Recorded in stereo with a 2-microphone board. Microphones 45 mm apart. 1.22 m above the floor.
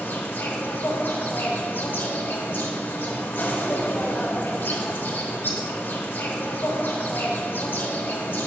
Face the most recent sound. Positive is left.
turn(degrees=50)  # may be behind; listen again after turning